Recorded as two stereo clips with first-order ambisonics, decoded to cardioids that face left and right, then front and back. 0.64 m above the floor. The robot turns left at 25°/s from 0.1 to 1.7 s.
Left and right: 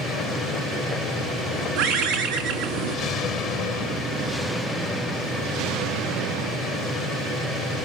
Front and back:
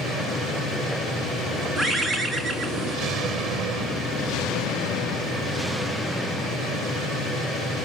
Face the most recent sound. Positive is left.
turn(degrees=-90)